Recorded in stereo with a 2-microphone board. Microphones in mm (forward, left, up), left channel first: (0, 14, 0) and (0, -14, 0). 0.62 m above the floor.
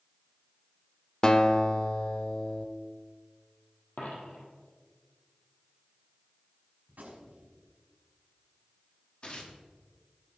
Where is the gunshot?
75° right (ahead or behind), 3.5 m.